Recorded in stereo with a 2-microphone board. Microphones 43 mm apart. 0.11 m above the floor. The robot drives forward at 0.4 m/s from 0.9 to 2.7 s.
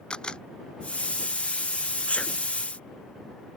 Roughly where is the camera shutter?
Left.